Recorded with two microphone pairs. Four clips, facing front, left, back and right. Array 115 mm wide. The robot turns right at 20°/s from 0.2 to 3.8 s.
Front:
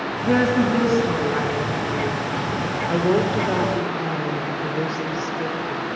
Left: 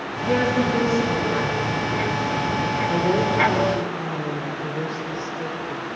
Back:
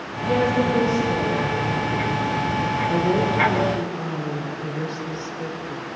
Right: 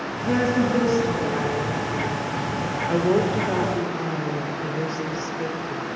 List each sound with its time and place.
0.2 s a woman speaking: 10° right, 3.5 m; by 2.2 s 25° left, 3.5 m
2.9 s a woman speaking: 15° right, 1.1 m; by 5.9 s straight ahead, 1.1 m